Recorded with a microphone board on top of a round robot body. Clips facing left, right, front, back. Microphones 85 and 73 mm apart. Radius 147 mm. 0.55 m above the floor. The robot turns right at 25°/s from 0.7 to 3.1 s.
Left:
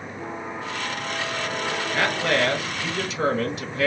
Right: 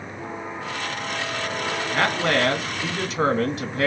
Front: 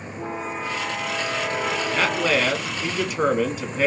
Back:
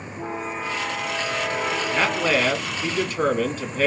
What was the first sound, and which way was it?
A man speaking, 100° right.